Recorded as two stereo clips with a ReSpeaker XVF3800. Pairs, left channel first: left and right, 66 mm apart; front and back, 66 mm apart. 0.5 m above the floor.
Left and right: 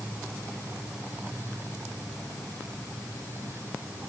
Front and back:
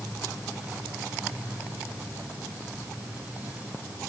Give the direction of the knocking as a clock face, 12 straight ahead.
I don't hear knocking.